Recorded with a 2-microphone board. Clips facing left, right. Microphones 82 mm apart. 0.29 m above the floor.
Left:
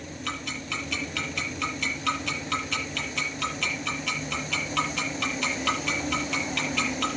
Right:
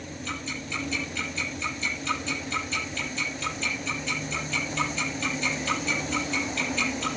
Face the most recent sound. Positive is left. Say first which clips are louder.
# left 2 dB
turn(degrees=80)